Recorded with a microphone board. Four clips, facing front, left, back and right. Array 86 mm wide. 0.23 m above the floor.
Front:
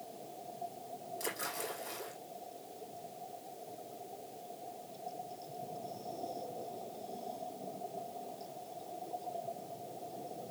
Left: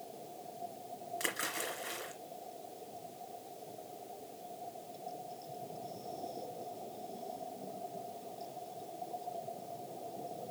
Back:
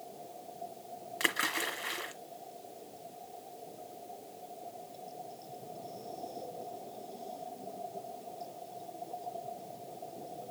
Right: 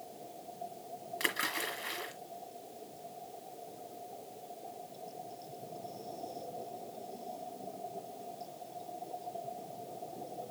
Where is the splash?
165° right, 2 m.